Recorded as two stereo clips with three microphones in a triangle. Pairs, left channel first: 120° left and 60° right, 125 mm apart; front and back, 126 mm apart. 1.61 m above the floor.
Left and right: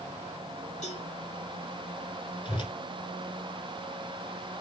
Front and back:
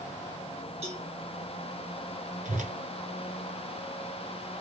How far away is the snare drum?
No snare drum in this recording.